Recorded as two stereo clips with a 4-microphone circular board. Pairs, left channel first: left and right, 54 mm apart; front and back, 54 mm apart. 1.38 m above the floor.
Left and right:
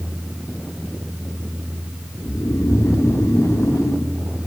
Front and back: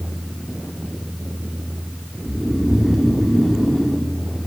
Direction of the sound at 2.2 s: 95° left.